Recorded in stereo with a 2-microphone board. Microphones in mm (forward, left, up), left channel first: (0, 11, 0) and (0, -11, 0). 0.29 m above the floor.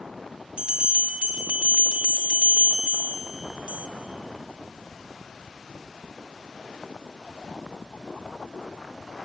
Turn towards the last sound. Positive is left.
turn(degrees=-50)  # may be behind; listen again after turning